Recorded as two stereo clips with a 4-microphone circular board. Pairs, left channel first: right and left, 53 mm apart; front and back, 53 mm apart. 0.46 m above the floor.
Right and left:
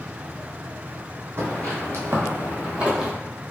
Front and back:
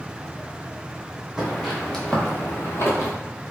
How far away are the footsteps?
About 1.1 m.